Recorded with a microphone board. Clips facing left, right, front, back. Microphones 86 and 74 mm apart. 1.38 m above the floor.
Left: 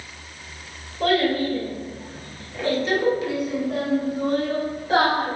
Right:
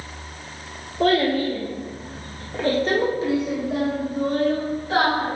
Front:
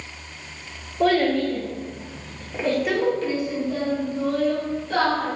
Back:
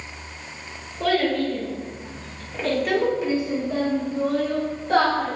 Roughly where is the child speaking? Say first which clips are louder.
Right 1 dB, front 2 dB; ahead right.